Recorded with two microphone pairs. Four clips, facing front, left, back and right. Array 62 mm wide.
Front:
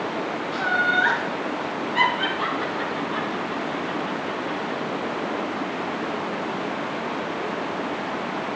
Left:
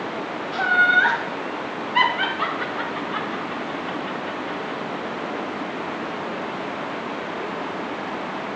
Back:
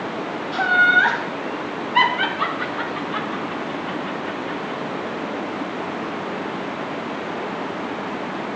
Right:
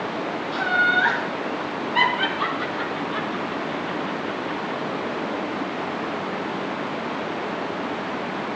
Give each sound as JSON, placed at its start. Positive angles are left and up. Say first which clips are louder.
{"t": 0.5, "sound": "laughter", "louder": "left 3 dB, back 6 dB", "azimuth_deg": 150, "distance_m": 3.5}